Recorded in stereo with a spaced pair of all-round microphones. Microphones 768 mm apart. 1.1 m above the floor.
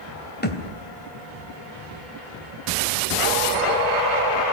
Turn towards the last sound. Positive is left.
turn(degrees=10)  # may be behind; listen again after turning